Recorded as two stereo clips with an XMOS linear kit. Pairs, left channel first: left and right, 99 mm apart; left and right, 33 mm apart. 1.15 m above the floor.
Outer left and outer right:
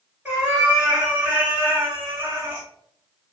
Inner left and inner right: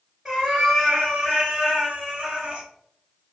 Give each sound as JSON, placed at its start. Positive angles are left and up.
{"t": 0.2, "sound": "a cat meowing", "side_deg": -10, "distance_m": 1.5}